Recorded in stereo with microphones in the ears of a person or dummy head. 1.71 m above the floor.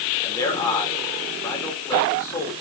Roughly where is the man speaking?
Centre.